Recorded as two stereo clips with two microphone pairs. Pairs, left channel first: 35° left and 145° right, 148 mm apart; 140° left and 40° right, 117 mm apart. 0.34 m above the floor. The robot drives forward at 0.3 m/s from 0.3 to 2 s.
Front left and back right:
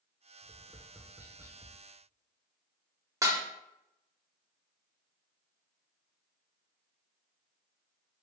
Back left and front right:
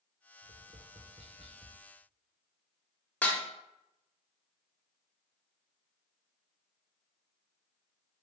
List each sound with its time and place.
0.4 s tapping: 50° right, 0.7 m; by 1.8 s 80° right, 0.5 m
3.2 s dishes clattering: 160° right, 0.5 m